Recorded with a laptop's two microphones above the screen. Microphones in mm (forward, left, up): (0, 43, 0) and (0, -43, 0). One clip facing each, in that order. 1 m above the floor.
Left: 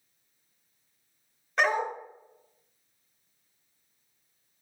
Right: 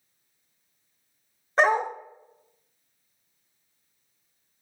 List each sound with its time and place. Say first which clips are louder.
1.6 s a dog barking: right 5 dB; 35° right (ahead or behind), 0.9 m